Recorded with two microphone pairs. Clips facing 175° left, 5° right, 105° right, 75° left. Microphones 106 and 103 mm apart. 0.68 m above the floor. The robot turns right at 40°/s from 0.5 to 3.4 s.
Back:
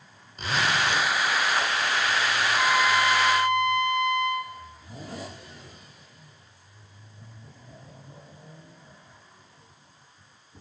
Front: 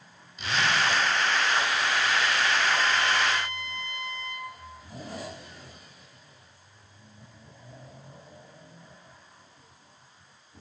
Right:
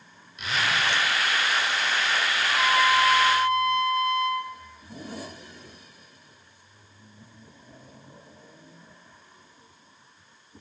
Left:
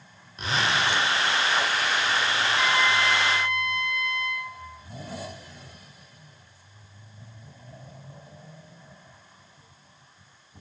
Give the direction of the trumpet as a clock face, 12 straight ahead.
6 o'clock.